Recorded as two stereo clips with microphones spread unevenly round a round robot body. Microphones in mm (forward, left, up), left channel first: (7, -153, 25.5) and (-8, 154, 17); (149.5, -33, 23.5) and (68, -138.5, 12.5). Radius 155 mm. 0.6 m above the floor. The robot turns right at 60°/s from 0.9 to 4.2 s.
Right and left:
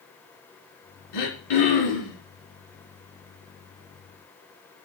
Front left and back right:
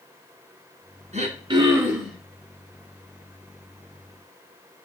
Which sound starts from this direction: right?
Throat clearing, at 1.1 s.